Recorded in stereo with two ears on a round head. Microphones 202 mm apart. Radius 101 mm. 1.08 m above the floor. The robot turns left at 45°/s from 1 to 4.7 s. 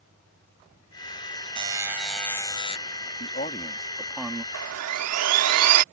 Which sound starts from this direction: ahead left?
A man speaking, at 3.2 s.